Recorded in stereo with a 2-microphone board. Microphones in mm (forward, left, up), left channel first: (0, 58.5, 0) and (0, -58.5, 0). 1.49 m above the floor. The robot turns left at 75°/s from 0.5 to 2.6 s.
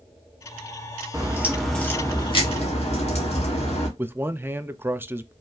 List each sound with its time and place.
1.1 s a crack: 145° right, 1.7 m; by 3.9 s 105° left, 1.7 m
4.0 s a man speaking: 20° right (ahead or behind), 0.5 m